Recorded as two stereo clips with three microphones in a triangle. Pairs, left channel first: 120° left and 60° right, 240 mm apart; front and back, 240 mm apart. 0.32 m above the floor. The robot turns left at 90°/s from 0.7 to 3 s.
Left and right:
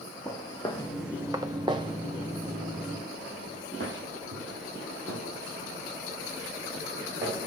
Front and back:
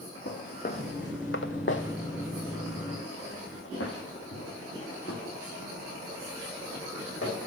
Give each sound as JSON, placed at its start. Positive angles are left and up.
{"t": 0.2, "sound": "footsteps", "azimuth_deg": 40, "distance_m": 1.2}